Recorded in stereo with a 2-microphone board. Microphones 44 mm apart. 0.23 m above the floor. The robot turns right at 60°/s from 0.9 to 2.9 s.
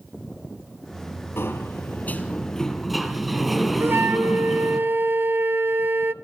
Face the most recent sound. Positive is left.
turn(degrees=-80)